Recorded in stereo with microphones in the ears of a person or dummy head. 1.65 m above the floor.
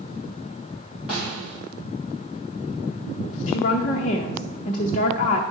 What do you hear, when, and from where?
1.1 s a snare drum: 5° right (ahead or behind), 3 m
3.5 s a woman speaking: 45° left (ahead or behind), 0.5 m